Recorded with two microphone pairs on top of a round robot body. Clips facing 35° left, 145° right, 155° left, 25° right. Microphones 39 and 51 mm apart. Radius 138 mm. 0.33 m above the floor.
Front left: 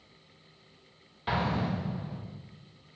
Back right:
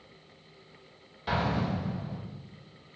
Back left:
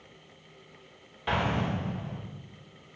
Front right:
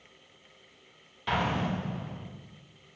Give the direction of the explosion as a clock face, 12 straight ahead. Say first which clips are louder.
Even, even; 9 o'clock.